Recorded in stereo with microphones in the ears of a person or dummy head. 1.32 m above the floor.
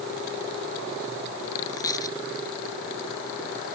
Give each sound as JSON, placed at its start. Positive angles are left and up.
{"t": 1.7, "sound": "a dropped coin", "side_deg": 15}